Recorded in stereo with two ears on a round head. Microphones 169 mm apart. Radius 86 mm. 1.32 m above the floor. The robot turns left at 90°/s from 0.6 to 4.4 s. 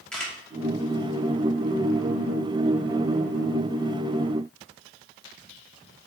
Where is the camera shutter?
5° left (ahead or behind), 1.2 m.